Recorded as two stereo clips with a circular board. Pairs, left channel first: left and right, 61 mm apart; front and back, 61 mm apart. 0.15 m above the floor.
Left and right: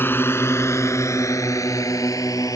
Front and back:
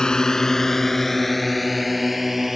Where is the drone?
70° left; by 2.6 s 95° left.